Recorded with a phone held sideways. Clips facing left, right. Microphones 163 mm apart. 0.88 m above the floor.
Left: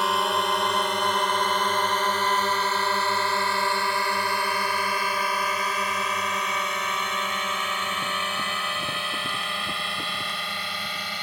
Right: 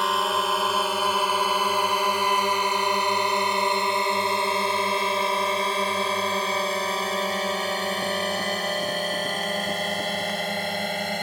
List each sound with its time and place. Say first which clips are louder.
0.0 s a drone: even; centre (ahead or behind); by 11.2 s 50° right (ahead or behind)